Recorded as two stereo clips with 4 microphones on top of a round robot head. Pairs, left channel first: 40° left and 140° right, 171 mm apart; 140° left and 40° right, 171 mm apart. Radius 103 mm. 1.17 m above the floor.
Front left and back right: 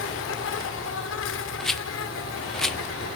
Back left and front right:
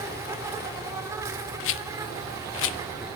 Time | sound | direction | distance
0.0 | an insect | 35° left | 2.5 m
1.6 | a rattle | 130° left | 0.9 m